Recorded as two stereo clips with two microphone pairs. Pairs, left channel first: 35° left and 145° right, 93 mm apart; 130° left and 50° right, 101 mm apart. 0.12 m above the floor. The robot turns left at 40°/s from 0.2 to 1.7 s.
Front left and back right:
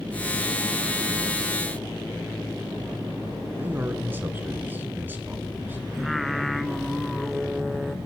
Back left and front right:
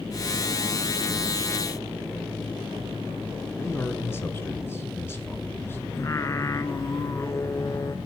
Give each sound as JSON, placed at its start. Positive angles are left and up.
{"t": 3.6, "sound": "a man speaking", "azimuth_deg": 175, "distance_m": 1.2}
{"t": 5.9, "sound": "singing", "azimuth_deg": 130, "distance_m": 0.5}